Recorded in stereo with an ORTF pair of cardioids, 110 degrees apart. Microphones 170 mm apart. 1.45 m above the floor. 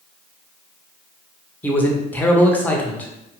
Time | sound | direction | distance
1.6 | a man speaking | 10° left | 0.6 m